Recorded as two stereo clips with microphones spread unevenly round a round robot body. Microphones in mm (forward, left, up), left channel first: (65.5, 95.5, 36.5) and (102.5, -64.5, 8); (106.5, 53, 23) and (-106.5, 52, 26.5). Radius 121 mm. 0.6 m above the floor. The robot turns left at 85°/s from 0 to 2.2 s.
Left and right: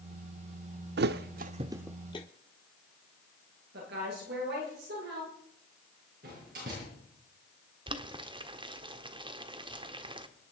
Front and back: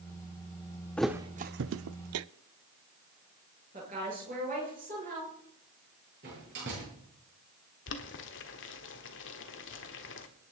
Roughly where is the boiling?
Ahead right.